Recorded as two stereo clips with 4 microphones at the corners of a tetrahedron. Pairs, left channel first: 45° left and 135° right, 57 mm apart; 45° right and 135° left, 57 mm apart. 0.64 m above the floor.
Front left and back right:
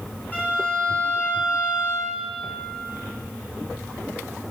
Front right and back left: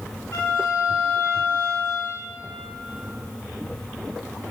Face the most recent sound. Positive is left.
turn(degrees=-15)